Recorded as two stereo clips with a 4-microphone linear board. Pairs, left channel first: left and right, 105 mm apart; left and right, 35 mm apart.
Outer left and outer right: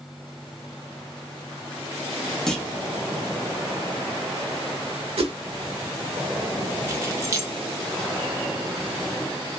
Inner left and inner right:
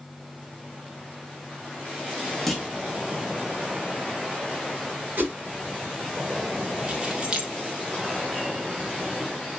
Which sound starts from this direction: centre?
A clunk, at 2.5 s.